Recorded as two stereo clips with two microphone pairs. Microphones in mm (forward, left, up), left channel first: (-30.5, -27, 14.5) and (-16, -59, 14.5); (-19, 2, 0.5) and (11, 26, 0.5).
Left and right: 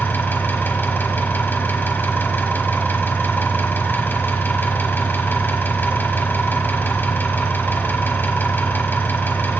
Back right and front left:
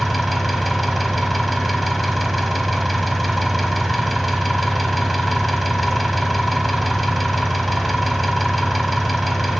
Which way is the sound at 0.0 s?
130° left.